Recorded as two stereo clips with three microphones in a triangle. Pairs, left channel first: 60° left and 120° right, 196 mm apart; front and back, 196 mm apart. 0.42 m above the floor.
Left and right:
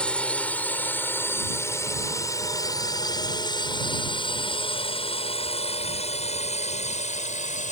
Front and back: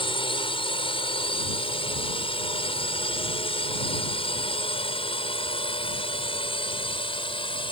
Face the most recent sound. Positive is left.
turn(degrees=45)